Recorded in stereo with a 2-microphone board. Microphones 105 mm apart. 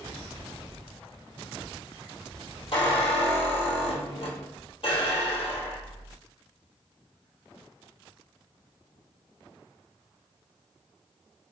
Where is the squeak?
60° left (ahead or behind), 1.2 m.